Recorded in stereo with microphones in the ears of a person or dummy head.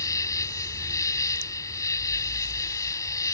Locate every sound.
0.0 s an insect: 20° left (ahead or behind)